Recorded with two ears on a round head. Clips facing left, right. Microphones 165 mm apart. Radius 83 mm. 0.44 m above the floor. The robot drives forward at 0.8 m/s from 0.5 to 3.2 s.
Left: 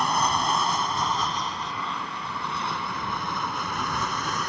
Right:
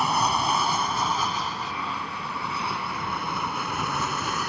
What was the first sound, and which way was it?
An aircraft, 5° right (ahead or behind).